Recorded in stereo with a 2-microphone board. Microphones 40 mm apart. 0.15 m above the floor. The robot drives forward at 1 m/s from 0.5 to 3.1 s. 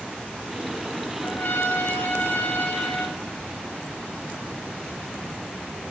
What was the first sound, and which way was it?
A trumpet, 60° left (ahead or behind).